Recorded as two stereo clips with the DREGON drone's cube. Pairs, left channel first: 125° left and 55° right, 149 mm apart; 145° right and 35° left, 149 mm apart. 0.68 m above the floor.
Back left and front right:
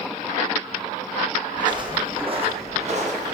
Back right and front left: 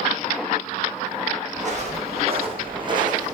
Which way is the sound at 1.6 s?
5° left.